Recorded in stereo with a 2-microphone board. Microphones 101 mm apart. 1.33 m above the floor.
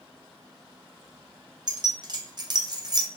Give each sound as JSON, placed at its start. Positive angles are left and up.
{"t": 1.7, "sound": "keys jangling", "side_deg": -45, "distance_m": 0.7}